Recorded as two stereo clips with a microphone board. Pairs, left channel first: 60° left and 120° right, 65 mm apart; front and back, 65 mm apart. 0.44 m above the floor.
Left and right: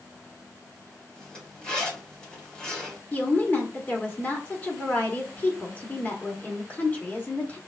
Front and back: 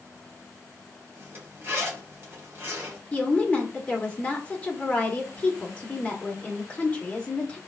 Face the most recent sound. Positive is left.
turn(degrees=35)